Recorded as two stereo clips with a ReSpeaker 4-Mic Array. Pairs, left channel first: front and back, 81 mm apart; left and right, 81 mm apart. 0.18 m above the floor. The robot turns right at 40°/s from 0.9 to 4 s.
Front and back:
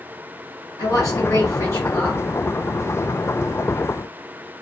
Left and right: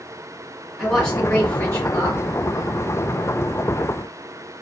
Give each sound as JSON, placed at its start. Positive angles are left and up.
{"t": 0.8, "sound": "a woman speaking", "azimuth_deg": 5, "distance_m": 1.9}